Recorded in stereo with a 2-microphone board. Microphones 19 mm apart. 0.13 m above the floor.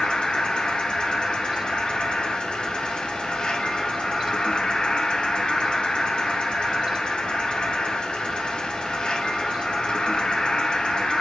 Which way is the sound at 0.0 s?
50° left (ahead or behind).